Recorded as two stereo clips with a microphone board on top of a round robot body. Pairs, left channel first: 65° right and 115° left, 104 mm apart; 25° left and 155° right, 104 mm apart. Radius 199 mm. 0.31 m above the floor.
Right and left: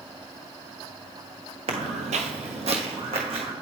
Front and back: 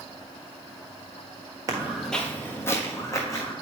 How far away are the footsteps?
About 0.5 m.